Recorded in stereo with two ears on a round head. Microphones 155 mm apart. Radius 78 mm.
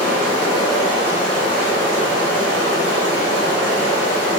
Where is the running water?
75° right (ahead or behind), 1.6 m.